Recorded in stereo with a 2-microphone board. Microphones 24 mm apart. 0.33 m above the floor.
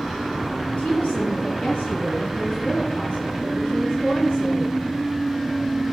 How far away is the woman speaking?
About 6 m.